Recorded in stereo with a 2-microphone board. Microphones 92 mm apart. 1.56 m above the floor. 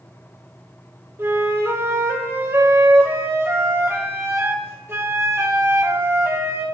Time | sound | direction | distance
1.2 | a flute | 30° right (ahead or behind) | 1.2 m